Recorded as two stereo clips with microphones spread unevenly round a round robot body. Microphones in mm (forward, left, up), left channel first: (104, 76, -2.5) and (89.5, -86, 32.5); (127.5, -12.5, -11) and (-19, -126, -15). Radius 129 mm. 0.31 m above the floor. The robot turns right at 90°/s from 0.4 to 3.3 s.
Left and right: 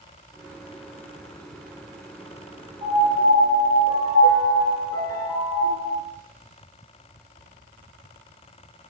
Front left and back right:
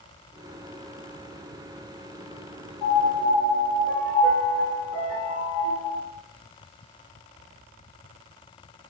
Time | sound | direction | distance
2.8 | a piano | 30° right | 1.0 m